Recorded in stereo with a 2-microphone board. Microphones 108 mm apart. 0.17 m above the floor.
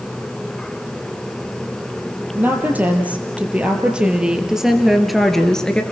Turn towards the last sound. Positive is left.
turn(degrees=10)  # may be behind; listen again after turning